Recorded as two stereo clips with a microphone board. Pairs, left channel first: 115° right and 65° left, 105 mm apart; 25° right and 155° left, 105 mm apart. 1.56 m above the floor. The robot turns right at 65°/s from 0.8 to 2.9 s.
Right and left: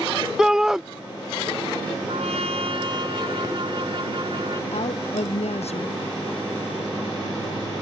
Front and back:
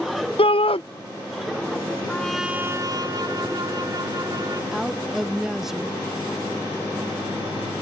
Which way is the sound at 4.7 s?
115° right.